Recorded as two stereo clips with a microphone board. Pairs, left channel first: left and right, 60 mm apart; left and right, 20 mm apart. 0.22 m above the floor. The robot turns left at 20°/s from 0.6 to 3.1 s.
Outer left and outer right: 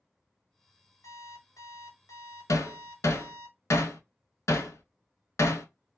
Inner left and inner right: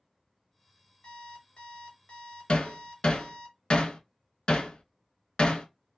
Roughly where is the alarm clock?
Left.